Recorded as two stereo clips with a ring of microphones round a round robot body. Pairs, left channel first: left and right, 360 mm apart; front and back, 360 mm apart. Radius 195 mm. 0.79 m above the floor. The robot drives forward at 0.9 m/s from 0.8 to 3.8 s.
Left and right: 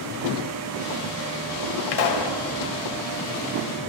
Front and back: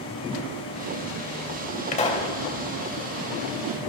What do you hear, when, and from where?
1.9 s a pop: 70° left, 3 m; by 2.3 s 75° left, 3 m